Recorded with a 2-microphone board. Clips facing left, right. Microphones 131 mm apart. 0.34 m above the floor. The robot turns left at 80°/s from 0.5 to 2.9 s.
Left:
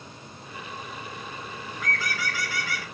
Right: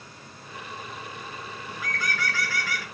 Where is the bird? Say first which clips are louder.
Left 1 dB; 160° right, 1.4 m; by 2.8 s 110° left, 1.4 m.